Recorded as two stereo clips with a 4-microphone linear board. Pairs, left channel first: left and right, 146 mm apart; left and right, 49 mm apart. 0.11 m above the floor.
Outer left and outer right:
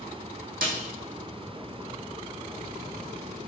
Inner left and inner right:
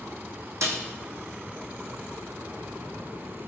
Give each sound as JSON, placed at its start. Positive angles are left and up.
{"t": 0.6, "sound": "a snare drum", "side_deg": -80, "distance_m": 1.2}